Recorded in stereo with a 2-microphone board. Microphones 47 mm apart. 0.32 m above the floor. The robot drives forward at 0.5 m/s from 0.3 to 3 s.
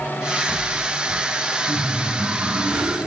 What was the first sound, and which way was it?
Laughter, 40° right (ahead or behind).